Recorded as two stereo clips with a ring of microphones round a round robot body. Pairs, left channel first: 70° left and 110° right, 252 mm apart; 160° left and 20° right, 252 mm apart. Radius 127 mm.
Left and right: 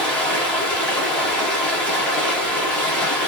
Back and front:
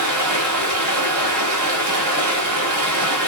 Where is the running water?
20° right, 1.0 m.